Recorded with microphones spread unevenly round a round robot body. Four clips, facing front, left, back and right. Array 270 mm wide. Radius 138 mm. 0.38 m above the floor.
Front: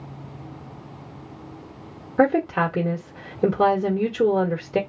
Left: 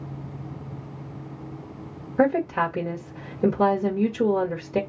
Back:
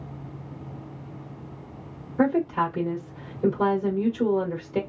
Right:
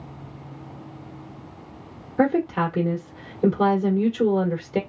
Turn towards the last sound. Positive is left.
turn(degrees=-15)